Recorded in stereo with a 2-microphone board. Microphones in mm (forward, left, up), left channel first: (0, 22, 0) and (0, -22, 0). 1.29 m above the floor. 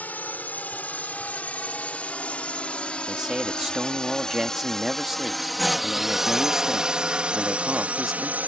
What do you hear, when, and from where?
0.0 s a drone: 40° left (ahead or behind); by 8.5 s 40° right (ahead or behind)
3.1 s a man speaking: 10° right (ahead or behind)